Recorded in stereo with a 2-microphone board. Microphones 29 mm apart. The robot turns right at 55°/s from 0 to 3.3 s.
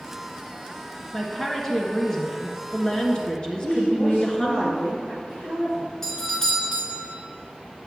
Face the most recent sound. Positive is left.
turn(degrees=15)  # may be behind; listen again after turning